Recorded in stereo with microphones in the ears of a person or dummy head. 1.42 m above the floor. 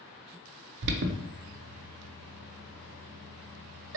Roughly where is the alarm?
Right.